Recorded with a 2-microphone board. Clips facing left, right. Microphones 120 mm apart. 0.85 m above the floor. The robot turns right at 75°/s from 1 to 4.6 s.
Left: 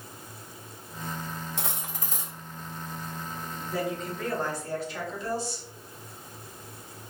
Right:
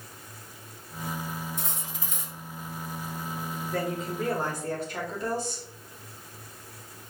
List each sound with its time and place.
1.6 s cutlery clinking: 105° left, 0.8 m; by 2.3 s 160° left, 0.8 m
3.6 s a woman speaking: 160° left, 1.6 m; by 5.7 s 125° right, 1.6 m